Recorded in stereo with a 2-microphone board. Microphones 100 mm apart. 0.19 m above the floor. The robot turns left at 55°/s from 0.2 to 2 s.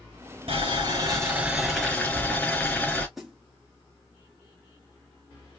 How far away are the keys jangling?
No keys jangling in this recording.